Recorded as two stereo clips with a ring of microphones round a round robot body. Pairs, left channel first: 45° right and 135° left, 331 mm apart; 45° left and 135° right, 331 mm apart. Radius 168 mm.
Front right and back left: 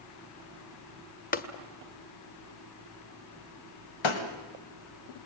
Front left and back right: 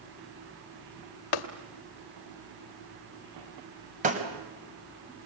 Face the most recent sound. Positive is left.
turn(degrees=-65)